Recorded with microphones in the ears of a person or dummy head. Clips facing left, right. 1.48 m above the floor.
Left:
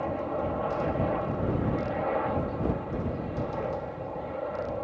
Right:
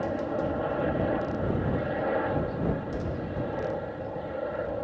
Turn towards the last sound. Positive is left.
turn(degrees=-10)  # may be behind; listen again after turning